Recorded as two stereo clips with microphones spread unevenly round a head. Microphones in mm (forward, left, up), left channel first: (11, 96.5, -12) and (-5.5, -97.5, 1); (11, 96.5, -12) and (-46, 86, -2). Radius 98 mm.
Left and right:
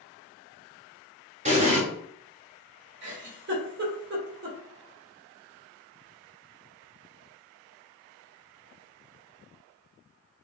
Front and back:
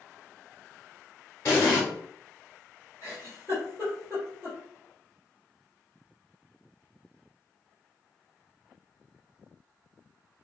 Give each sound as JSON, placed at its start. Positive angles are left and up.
{"t": 1.4, "sound": "an explosion", "azimuth_deg": -55, "distance_m": 0.9}
{"t": 3.0, "sound": "a giggle", "azimuth_deg": -115, "distance_m": 1.0}